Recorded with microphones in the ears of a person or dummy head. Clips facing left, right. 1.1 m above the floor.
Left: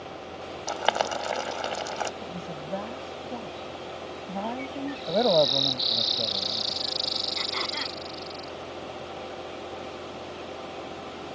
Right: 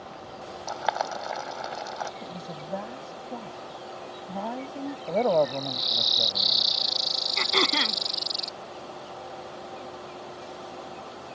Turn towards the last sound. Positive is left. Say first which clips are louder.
# right 6 dB
turn(degrees=-60)  # may be behind; listen again after turning